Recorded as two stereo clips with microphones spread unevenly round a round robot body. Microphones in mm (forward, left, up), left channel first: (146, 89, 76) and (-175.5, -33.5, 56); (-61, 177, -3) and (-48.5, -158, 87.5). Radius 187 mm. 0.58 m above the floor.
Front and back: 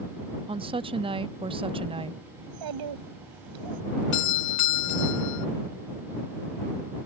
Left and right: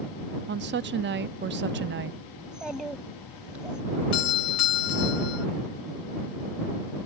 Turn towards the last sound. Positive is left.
turn(degrees=60)